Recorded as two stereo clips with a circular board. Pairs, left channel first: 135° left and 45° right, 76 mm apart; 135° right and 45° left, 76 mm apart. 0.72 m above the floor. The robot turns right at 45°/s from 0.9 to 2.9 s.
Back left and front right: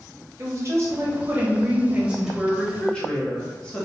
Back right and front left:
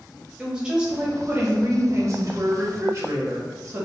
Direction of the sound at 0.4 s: 30° right.